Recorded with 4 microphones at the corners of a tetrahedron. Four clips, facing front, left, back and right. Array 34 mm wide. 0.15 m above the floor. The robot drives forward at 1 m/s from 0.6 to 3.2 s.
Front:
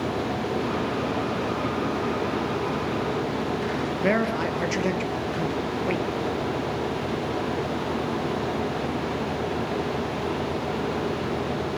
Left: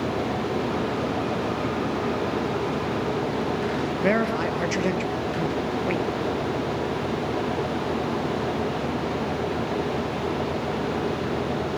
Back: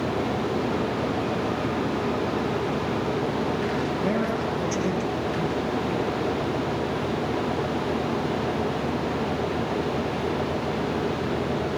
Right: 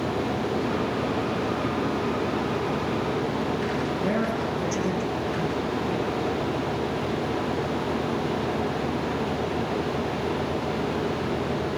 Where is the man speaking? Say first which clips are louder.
Left 6 dB, front 2 dB; 55° left, 3 m.